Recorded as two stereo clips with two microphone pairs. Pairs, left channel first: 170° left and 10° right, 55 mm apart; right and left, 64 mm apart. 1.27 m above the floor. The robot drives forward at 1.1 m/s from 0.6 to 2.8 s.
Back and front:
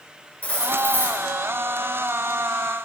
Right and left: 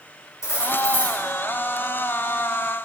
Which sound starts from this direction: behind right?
Cutlery clinking, at 0.4 s.